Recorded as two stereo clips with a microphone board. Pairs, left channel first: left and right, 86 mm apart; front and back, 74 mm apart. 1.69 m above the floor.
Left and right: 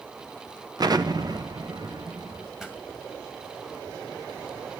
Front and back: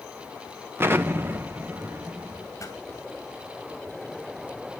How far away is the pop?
About 2 m.